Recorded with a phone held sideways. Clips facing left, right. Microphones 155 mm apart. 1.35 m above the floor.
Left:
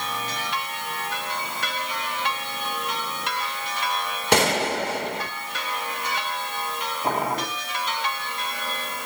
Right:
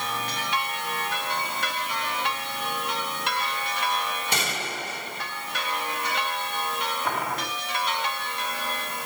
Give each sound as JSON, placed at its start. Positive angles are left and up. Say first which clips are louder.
{"t": 4.3, "sound": "a gunshot", "louder": "left 10 dB", "side_deg": 75, "distance_m": 1.5}
{"t": 7.0, "sound": "boiling", "louder": "left 8 dB", "side_deg": 30, "distance_m": 3.5}